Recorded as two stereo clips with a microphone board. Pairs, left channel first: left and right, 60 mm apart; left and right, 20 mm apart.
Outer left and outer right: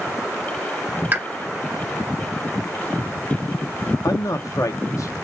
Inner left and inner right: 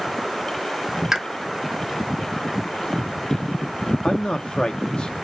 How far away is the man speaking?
About 0.6 m.